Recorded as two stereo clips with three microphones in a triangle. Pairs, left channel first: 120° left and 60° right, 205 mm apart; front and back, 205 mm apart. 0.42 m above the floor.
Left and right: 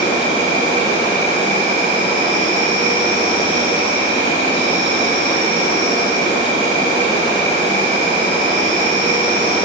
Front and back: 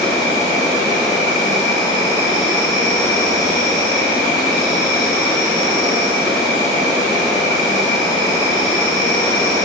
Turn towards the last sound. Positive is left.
turn(degrees=65)